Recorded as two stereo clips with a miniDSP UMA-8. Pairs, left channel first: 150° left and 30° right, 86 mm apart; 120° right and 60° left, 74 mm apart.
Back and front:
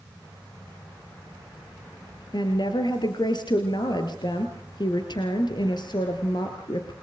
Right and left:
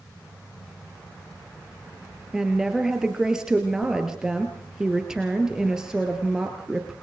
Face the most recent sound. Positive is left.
turn(degrees=140)